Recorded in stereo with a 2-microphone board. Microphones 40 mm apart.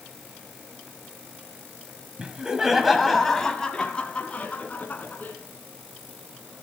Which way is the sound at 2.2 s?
25° right (ahead or behind).